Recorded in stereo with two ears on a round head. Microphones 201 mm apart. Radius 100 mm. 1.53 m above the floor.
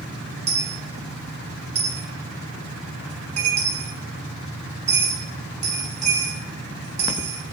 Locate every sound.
0.5 s a dropped coin: 30° right (ahead or behind), 1.3 m